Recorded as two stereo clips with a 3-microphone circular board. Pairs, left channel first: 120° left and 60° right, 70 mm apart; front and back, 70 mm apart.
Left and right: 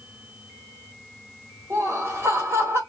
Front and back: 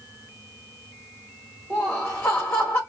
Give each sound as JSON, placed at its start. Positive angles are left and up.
{"t": 1.7, "sound": "laughter", "azimuth_deg": -60, "distance_m": 1.5}